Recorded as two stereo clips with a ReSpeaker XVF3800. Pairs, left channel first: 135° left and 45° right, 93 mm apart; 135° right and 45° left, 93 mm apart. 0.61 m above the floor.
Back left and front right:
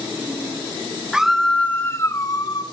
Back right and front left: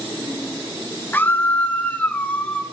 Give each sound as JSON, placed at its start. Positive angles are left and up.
{"t": 1.1, "sound": "a scream", "azimuth_deg": -115, "distance_m": 1.0}